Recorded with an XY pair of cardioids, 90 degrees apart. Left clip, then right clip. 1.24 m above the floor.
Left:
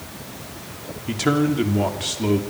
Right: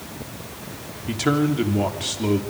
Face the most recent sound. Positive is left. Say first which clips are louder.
# left 1 dB
turn(degrees=5)